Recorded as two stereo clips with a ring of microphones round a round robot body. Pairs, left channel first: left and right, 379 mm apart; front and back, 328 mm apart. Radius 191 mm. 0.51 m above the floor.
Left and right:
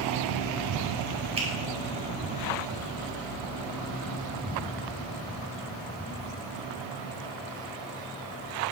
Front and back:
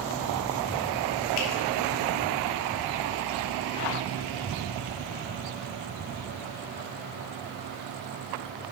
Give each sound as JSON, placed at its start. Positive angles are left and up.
{"t": 1.4, "sound": "a finger snap", "azimuth_deg": -15, "distance_m": 2.0}